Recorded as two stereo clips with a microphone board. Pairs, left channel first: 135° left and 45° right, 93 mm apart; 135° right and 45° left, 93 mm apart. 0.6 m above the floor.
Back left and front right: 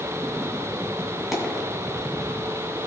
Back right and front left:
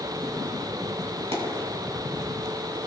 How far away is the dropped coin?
About 2.5 m.